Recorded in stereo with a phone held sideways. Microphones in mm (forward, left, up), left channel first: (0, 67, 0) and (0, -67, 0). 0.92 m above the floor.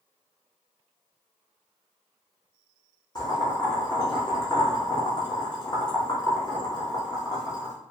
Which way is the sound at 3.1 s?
30° left (ahead or behind).